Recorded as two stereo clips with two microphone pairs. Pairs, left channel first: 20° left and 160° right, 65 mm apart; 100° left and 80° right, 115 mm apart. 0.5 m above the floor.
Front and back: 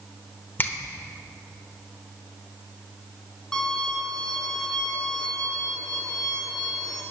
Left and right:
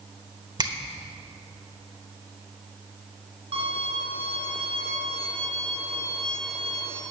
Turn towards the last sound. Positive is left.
turn(degrees=-65)